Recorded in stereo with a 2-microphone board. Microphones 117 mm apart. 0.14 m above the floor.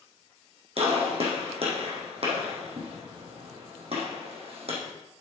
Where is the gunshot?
60° right (ahead or behind), 4 m.